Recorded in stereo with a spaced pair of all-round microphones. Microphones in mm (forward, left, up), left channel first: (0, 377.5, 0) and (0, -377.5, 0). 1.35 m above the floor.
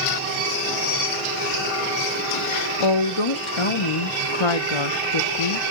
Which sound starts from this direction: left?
A woman speaking, at 2.8 s.